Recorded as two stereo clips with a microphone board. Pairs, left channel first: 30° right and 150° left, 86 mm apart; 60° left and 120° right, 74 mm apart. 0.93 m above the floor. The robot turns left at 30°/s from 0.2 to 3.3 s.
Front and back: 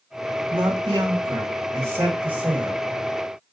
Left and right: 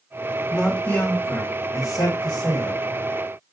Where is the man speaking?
135° left, 1.5 m; by 2.8 s 65° left, 1.5 m.